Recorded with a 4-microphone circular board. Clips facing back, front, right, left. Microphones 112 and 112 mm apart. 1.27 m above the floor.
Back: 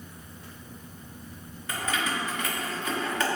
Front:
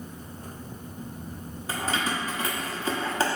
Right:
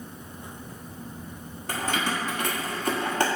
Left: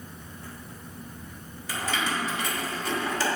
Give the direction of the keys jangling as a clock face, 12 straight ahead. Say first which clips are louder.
Front 1 dB, right 1 dB; 2 o'clock.